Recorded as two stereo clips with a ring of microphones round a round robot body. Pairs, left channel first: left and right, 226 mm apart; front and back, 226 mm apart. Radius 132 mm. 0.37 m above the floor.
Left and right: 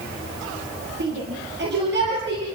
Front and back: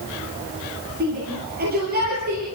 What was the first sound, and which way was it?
A shout, 135° right.